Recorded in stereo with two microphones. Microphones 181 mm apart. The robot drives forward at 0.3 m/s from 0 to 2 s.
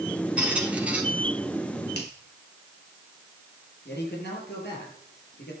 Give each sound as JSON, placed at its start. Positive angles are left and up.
{"t": 0.4, "sound": "a squeak", "side_deg": -5, "distance_m": 1.9}
{"t": 1.9, "sound": "a finger snap", "side_deg": 70, "distance_m": 3.5}
{"t": 3.9, "sound": "a man speaking", "side_deg": 75, "distance_m": 7.5}